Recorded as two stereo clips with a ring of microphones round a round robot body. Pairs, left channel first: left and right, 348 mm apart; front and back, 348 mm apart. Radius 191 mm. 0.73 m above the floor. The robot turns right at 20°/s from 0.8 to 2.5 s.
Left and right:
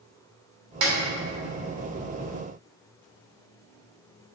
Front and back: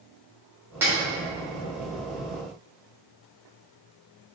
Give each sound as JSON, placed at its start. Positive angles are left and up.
{"t": 0.8, "sound": "a snare drum", "azimuth_deg": -95, "distance_m": 3.0}